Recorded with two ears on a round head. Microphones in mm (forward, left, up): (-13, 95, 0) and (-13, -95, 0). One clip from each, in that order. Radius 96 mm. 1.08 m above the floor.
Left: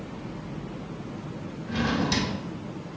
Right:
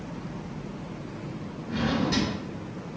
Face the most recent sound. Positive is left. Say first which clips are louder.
# left 1 dB
turn(degrees=45)  # may be behind; listen again after turning